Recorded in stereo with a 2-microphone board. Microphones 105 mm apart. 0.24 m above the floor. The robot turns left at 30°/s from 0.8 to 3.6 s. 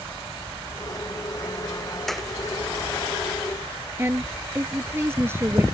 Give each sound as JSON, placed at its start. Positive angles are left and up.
{"t": 2.1, "sound": "a clap", "side_deg": 5}
{"t": 4.0, "sound": "a woman speaking", "side_deg": -25}